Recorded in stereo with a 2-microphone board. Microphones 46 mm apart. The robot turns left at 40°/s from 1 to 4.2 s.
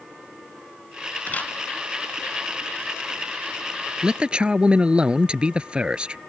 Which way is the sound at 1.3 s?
40° left (ahead or behind).